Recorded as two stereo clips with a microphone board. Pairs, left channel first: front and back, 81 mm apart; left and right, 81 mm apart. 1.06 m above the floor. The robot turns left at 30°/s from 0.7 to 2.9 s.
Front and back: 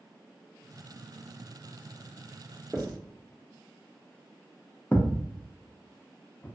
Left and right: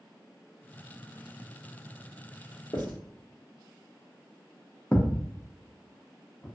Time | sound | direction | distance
2.7 | writing | 105° left | 1.0 m
4.9 | a thud | 35° left | 0.6 m